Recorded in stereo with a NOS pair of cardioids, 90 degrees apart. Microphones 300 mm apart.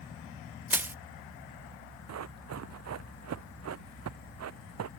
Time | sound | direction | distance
0.7 | crushing | 5° right | ?
2.1 | running footsteps | 60° right | ?